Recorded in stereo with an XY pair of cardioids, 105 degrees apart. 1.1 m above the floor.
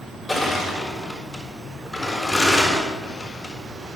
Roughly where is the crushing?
Ahead.